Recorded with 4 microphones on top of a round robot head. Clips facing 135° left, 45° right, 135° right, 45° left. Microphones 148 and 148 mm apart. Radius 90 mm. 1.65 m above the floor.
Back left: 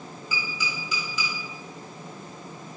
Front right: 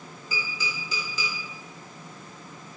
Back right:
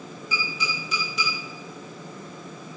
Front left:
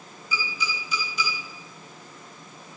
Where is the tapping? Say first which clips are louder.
Even, even; 105° right, 3 m.